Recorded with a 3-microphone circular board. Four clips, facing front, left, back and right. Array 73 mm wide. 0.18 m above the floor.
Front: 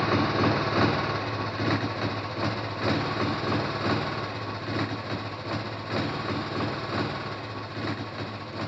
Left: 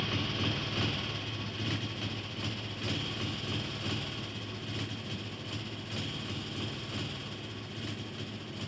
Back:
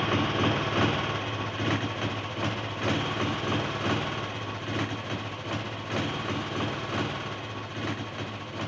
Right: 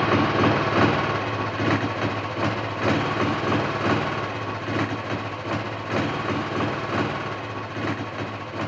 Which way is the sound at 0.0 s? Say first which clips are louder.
Right 16 dB, front 2 dB; 75° right.